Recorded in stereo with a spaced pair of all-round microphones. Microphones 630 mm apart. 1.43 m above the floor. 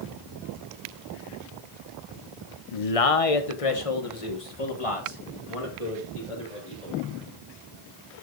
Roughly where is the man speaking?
Left.